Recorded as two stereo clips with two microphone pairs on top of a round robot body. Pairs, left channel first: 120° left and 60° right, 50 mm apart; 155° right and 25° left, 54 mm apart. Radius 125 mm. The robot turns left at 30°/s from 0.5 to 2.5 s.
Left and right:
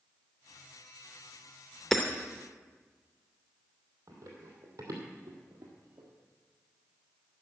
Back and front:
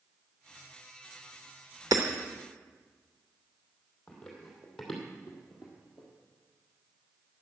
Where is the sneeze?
No sneeze in this recording.